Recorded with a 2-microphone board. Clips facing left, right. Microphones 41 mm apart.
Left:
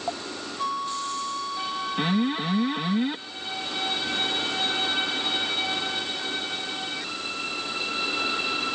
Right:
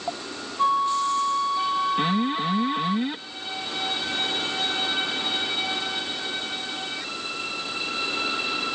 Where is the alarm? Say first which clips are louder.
Right 1 dB; centre (ahead or behind).